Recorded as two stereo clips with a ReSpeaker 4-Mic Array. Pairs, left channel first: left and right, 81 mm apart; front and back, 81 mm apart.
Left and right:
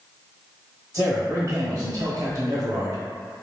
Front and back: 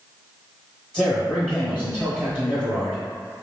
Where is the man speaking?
80° right, 1.2 m.